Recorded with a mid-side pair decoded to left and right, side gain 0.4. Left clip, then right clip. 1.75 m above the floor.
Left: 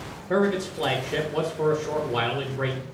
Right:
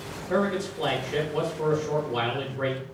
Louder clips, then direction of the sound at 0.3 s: Left 2 dB; 35° left.